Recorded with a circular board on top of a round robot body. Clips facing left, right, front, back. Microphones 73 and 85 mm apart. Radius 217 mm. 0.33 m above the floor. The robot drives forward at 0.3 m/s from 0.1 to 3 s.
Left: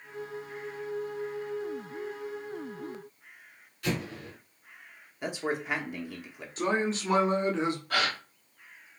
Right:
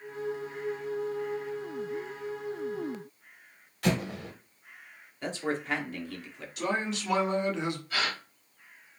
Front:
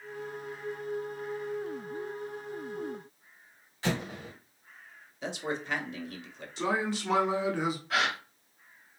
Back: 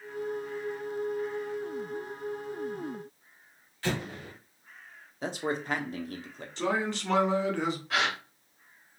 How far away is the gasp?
About 1.3 m.